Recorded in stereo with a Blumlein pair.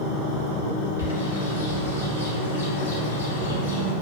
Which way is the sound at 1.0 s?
70° left.